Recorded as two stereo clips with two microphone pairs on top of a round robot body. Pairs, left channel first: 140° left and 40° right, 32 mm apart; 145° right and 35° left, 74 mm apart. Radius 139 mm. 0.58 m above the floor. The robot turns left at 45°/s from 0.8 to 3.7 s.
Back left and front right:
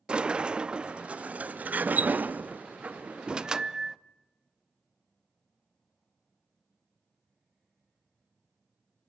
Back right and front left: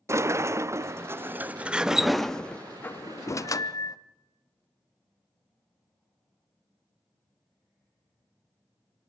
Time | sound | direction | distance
0.1 | a sliding door | 15° left | 0.9 m